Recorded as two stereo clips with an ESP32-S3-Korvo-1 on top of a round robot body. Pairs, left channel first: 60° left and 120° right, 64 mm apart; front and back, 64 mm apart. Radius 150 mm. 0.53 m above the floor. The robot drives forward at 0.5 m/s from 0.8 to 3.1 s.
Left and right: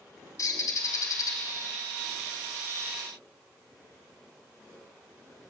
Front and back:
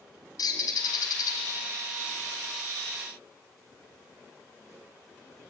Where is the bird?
20° left, 3 m; by 1.4 s 25° left, 3 m.